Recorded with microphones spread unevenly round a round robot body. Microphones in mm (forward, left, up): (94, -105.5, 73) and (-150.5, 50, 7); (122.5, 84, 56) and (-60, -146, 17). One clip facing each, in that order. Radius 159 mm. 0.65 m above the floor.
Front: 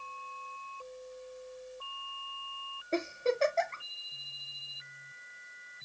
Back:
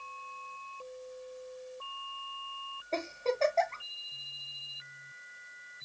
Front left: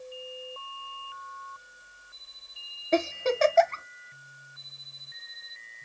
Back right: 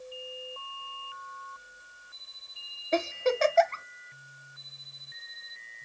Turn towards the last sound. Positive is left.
turn(degrees=45)